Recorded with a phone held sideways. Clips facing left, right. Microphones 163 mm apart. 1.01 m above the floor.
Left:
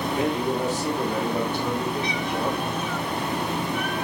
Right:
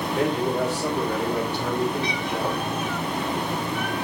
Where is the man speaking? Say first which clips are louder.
Right 2 dB; 75° right (ahead or behind), 5.5 m; by 2.7 s 65° right (ahead or behind), 4.5 m.